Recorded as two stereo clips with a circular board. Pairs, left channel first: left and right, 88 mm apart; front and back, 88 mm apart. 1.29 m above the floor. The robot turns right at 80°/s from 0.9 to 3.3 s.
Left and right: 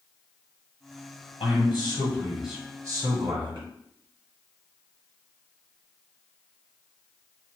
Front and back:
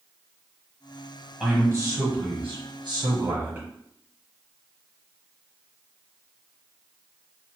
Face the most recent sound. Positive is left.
turn(degrees=-115)